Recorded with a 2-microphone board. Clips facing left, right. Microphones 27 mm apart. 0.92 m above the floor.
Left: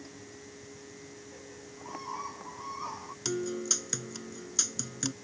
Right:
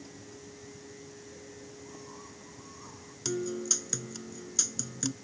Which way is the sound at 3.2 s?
10° left (ahead or behind).